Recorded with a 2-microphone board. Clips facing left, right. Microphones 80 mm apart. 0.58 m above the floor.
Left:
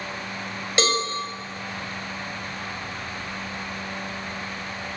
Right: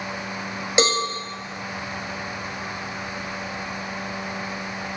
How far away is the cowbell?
About 1.5 m.